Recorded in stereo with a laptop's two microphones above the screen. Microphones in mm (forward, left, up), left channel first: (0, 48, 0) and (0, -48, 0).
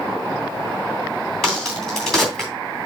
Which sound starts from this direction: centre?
A crack, at 1.4 s.